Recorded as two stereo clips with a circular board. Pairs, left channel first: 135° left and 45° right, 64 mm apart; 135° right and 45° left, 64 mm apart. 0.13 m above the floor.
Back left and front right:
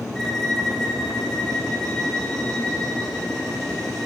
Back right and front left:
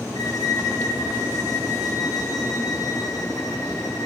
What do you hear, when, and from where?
0.1 s a violin: 145° right, 1.9 m